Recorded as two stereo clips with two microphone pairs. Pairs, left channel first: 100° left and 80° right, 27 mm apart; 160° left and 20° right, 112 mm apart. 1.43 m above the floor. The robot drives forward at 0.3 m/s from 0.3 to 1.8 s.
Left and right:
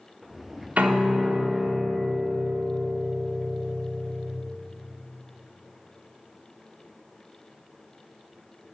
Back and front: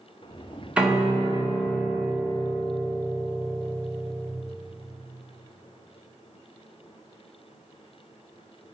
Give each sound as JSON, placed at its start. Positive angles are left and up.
{"t": 0.8, "sound": "a piano", "azimuth_deg": -105, "distance_m": 1.0}